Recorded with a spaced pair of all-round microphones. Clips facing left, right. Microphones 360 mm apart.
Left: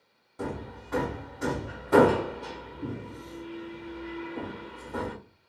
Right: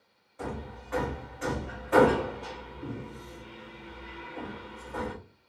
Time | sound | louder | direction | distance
0.4 | hammering | left 3 dB | 55° left (ahead or behind) | 1.3 m